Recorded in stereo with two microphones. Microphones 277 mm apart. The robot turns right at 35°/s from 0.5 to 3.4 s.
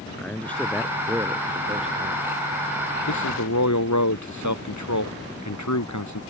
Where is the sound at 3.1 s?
85° left; by 6.2 s 75° left (ahead or behind).